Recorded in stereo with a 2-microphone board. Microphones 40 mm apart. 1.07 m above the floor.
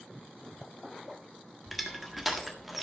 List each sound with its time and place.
1.7 s crushing: 5° right (ahead or behind), 1.4 m